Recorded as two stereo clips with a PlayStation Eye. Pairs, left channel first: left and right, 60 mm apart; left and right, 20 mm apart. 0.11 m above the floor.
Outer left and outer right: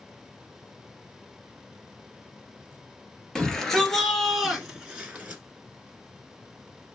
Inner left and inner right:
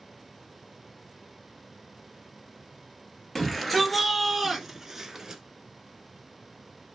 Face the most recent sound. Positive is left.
turn(degrees=-25)  # may be behind; listen again after turning